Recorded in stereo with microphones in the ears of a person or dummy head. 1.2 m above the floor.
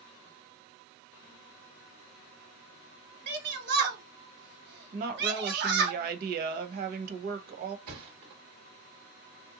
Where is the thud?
50° right (ahead or behind), 1.3 m.